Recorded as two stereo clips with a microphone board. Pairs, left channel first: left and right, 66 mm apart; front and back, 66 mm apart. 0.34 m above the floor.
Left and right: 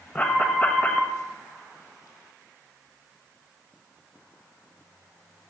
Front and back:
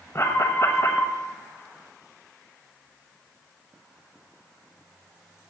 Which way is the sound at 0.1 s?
25° left.